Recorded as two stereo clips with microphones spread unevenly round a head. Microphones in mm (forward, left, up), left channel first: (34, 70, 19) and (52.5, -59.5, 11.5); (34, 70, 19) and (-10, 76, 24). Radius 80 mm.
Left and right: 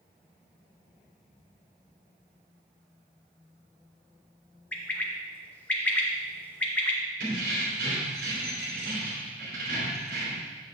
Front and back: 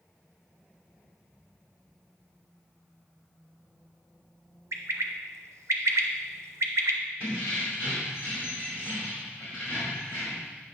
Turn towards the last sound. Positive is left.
turn(degrees=-120)